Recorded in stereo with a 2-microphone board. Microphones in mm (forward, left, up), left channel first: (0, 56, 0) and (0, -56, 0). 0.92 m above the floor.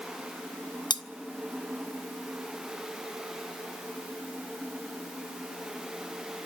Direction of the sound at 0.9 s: 40° left (ahead or behind).